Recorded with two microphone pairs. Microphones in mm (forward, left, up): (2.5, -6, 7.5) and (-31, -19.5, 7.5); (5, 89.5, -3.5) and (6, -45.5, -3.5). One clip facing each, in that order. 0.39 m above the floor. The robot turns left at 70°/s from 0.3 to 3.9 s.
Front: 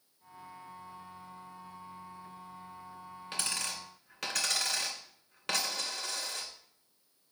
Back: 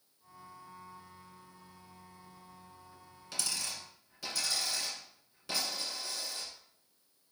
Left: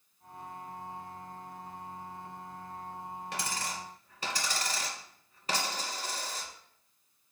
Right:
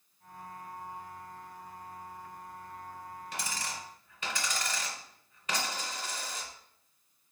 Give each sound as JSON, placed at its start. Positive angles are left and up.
{"t": 3.3, "sound": "a dropped coin", "azimuth_deg": 80, "distance_m": 1.6}